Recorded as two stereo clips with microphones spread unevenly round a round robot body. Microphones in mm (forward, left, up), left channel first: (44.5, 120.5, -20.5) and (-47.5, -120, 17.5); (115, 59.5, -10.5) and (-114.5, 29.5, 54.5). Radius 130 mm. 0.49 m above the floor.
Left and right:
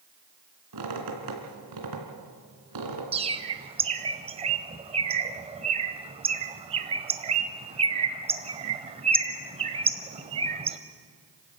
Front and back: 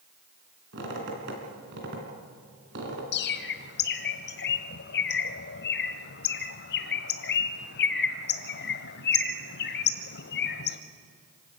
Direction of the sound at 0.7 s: 120° right.